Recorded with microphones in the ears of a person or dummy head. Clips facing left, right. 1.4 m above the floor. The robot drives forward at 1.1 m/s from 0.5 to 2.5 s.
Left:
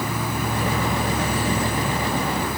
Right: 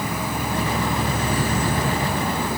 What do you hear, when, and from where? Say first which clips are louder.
0.0 s an insect: even; 15° right (ahead or behind), 1.3 m; by 2.6 s 20° right (ahead or behind), 1.2 m